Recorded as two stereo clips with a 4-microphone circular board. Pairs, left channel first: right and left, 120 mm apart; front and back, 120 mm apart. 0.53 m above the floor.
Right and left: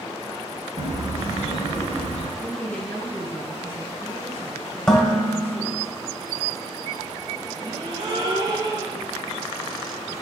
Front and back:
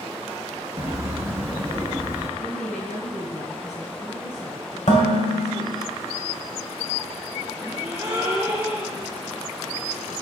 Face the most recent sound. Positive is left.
turn(degrees=120)